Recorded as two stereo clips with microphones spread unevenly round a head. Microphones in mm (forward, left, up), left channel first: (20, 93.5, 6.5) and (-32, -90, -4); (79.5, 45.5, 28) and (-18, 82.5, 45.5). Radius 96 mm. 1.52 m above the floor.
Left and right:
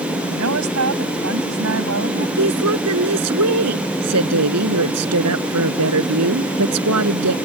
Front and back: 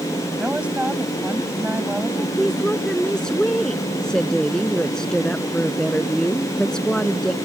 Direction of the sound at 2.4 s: 110° right.